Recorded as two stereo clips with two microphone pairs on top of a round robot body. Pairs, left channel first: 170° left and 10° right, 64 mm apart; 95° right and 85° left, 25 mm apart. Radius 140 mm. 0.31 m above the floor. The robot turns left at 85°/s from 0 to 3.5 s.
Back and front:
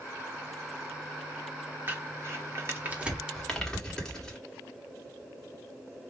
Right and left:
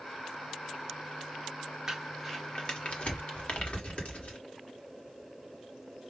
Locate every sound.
1.9 s crumpling: 25° left, 1.8 m; by 4.4 s 110° right, 1.8 m